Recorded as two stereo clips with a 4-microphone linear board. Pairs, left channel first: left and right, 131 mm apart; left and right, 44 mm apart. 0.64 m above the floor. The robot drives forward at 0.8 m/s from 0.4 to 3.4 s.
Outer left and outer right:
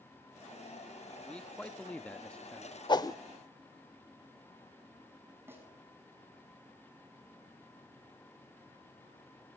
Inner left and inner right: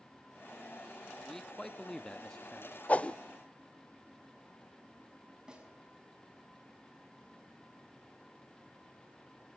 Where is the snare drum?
20° right (ahead or behind), 6 m.